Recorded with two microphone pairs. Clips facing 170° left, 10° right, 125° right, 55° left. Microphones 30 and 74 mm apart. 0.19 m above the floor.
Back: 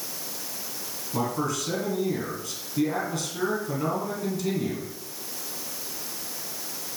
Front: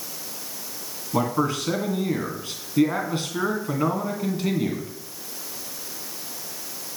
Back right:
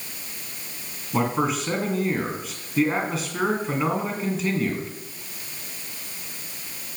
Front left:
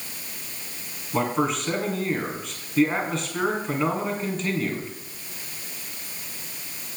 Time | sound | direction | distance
1.1 | a man speaking | 40° right | 1.8 m